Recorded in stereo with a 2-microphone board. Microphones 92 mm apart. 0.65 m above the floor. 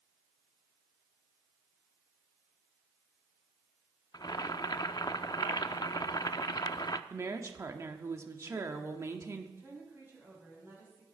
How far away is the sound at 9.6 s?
About 5.5 m.